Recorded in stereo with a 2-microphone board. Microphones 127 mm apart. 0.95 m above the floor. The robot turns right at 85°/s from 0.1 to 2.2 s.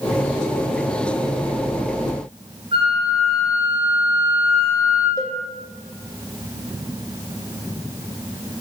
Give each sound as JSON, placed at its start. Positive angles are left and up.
{"t": 2.7, "sound": "a flute", "side_deg": -40, "distance_m": 4.5}
{"t": 5.2, "sound": "a cowbell", "side_deg": 25, "distance_m": 0.9}